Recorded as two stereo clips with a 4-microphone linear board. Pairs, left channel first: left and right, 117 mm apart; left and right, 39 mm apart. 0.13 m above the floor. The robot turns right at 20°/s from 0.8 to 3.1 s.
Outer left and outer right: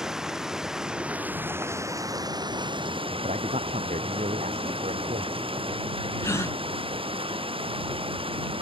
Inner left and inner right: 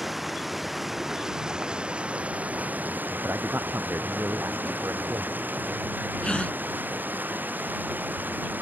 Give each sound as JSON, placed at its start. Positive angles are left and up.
{"t": 0.0, "sound": "running water", "azimuth_deg": -175}
{"t": 3.2, "sound": "a man speaking", "side_deg": -75}
{"t": 6.2, "sound": "a gasp", "side_deg": 25}